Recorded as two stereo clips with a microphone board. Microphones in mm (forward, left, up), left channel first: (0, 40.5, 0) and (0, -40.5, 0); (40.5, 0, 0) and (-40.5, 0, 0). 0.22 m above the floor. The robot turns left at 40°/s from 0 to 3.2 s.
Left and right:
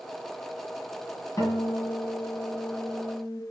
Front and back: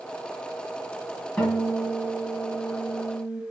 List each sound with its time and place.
1.4 s a guitar: 75° left, 1.7 m; by 3.4 s straight ahead, 1.7 m